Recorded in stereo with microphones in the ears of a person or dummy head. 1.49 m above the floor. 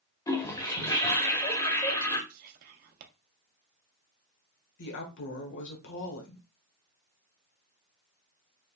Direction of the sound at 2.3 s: 50° right (ahead or behind).